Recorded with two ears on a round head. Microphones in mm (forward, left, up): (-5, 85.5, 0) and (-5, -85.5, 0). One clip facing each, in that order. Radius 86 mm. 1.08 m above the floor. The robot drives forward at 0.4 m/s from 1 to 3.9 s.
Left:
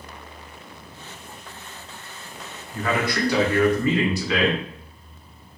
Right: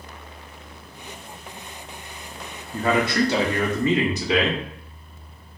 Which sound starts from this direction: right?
A man speaking, at 2.7 s.